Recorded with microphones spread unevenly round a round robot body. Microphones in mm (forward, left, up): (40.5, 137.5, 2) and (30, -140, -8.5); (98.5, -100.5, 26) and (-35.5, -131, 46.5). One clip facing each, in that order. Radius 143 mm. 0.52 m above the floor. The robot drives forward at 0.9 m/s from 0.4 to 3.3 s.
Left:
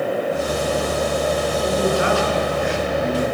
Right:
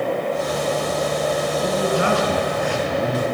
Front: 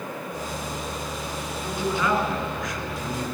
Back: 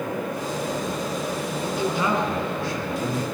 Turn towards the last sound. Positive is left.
turn(degrees=-115)